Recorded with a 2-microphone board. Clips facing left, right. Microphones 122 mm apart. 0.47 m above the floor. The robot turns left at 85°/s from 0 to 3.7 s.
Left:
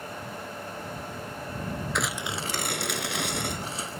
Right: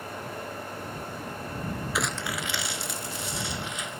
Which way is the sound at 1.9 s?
175° right.